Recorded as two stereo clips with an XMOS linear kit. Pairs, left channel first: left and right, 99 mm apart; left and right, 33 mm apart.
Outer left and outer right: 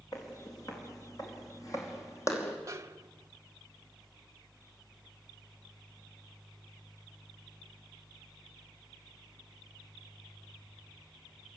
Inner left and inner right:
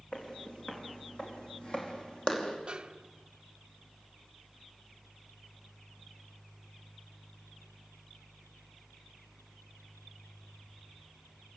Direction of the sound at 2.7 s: 30° right (ahead or behind).